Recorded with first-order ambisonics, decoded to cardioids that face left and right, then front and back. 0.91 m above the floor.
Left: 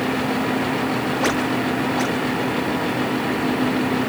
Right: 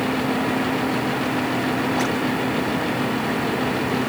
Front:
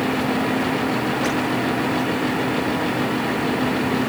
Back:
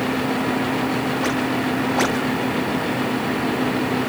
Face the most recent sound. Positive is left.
No sound to turn to.